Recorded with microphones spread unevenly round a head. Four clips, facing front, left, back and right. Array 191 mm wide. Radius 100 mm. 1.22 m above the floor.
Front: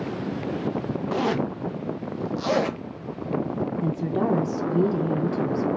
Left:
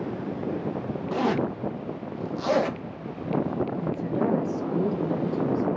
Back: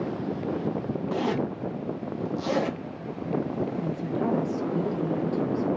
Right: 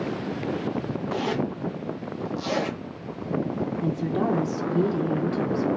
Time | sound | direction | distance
1.1 | a zipper | 20° left | 1.0 m
3.8 | a woman speaking | 25° right | 1.1 m